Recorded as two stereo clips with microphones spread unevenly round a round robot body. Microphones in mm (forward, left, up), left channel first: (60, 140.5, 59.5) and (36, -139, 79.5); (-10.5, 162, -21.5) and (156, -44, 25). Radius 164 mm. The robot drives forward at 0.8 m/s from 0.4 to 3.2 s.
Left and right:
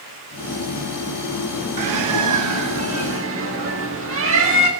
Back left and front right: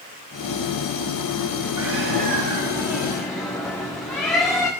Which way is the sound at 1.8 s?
100° right.